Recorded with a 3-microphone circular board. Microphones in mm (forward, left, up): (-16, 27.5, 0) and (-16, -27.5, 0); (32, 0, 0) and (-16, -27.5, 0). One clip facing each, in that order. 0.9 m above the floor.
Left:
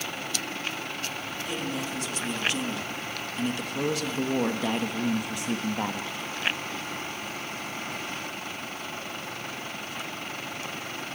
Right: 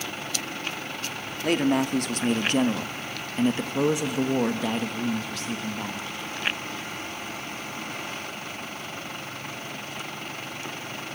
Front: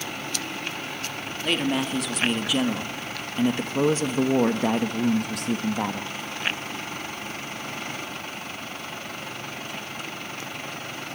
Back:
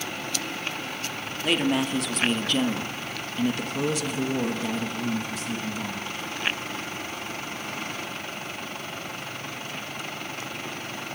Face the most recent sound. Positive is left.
turn(degrees=35)